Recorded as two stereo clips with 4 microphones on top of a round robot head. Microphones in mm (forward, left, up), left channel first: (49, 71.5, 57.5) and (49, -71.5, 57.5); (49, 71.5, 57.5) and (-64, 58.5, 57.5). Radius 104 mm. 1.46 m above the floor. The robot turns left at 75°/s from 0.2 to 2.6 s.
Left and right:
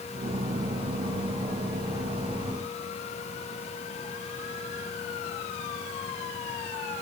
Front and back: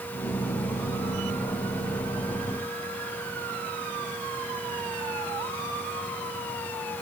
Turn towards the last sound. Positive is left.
No sound to turn to.